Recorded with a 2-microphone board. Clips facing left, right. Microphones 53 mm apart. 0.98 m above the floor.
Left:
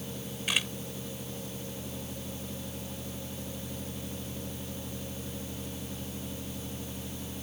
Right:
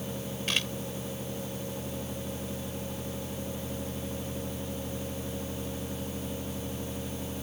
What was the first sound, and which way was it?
A camera shutter, 10° left (ahead or behind).